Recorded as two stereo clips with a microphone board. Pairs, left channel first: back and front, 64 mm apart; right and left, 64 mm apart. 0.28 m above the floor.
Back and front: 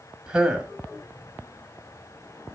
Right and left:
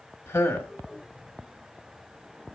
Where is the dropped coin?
No dropped coin in this recording.